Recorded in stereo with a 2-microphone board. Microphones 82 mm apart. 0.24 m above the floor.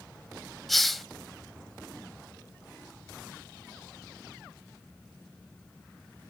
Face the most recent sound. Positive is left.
turn(degrees=0)  # may be behind; listen again after turning